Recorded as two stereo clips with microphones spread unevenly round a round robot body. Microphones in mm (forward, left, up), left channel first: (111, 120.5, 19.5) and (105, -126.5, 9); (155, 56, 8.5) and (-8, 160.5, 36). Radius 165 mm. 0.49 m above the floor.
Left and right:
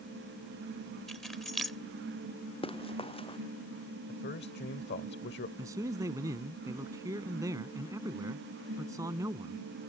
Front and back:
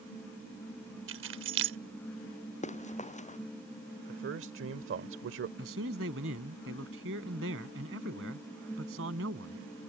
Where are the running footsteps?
20° left.